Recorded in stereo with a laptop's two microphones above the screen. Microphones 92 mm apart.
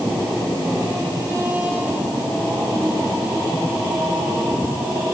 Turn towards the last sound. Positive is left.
No sound to turn to.